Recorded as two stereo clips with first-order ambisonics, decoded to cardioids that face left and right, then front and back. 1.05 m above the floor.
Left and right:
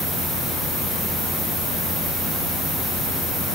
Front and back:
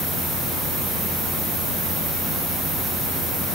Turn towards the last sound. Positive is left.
No sound to turn to.